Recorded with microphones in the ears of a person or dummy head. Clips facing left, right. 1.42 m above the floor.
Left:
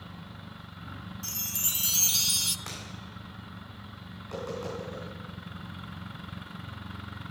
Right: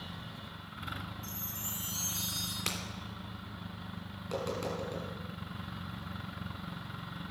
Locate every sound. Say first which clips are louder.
1.2 s a chime: left 1 dB; 85° left, 0.6 m
2.7 s breaking glass: right 5 dB; 40° right (ahead or behind), 2.5 m
4.2 s tapping: even; 25° right (ahead or behind), 5.5 m